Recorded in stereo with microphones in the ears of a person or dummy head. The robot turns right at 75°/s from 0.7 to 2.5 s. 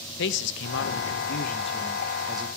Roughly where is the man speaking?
Left.